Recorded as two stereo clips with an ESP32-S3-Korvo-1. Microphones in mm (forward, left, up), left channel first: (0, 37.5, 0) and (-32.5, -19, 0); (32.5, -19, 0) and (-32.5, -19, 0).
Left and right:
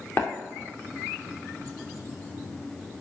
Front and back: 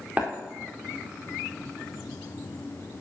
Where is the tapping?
110° left, 3 m.